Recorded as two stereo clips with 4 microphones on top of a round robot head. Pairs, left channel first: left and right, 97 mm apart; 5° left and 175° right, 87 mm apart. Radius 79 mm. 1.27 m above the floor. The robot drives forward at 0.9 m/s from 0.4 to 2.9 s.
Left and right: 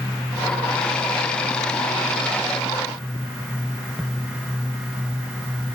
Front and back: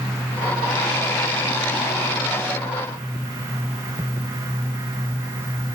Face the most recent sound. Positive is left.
No sound to turn to.